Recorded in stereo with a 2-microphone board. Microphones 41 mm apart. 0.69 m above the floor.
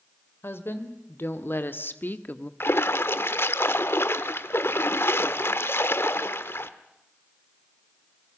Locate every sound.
0.4 s a woman speaking: 70° left (ahead or behind), 3 m; by 2.5 s 45° left (ahead or behind), 1.2 m
2.6 s a splash: 75° left (ahead or behind), 1.2 m